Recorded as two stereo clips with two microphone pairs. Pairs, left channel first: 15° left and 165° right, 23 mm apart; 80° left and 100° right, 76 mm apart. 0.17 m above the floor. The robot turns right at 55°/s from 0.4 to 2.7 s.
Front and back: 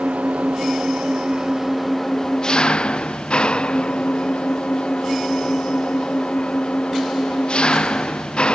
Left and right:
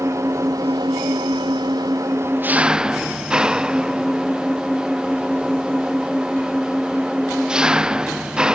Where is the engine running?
150° right; by 8.6 s 25° right.